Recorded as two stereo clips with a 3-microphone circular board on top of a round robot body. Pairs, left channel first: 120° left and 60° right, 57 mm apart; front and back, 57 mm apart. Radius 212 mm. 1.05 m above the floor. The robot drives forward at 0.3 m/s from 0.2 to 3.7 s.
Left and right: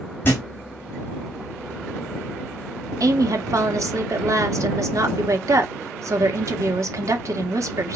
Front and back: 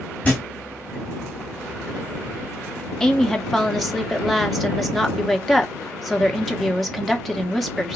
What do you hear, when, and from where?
0.2 s a thud: 70° left, 0.8 m; by 0.4 s 75° left, 0.8 m
3.0 s a woman speaking: 80° right, 1.5 m; by 8.0 s 90° right, 1.5 m